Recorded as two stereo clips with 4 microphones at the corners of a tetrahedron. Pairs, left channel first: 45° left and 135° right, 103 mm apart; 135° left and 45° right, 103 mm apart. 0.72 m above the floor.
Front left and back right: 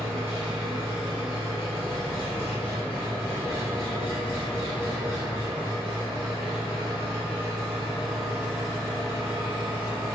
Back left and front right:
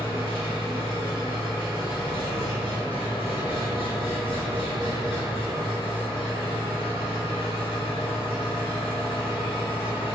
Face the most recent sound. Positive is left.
turn(degrees=160)